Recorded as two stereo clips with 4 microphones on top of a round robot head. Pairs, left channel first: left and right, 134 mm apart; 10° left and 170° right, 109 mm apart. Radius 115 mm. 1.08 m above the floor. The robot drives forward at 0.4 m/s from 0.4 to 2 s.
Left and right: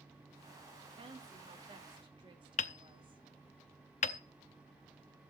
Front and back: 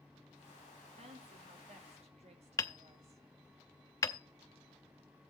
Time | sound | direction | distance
1.0 | a woman speaking | 145° right | 3 m
2.6 | hammering | 60° left | 0.7 m